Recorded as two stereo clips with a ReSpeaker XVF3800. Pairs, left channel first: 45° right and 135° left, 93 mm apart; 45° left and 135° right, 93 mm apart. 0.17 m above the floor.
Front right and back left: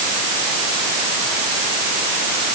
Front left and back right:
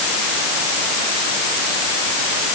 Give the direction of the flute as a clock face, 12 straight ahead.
No flute in this recording.